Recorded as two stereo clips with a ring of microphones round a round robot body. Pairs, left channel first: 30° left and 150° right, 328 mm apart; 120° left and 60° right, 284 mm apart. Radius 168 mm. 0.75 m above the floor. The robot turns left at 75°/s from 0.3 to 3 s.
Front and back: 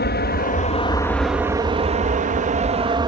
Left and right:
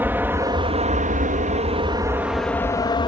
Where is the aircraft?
15° left; by 3.1 s 160° left.